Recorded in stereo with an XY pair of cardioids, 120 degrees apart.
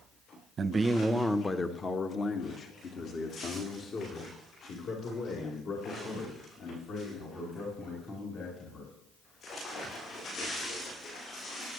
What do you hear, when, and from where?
0.6 s a man speaking: 40° right, 0.8 m; by 8.9 s 65° left, 7.5 m